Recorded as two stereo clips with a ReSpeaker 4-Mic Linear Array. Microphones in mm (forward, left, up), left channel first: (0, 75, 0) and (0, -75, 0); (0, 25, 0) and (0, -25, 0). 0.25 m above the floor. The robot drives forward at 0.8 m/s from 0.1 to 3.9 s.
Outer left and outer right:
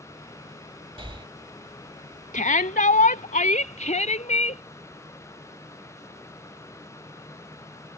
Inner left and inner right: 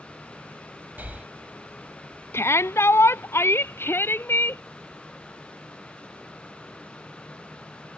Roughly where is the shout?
Left.